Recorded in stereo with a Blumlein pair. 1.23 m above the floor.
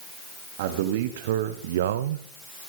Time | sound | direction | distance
0.6 | a man speaking | 55° right | 1.6 m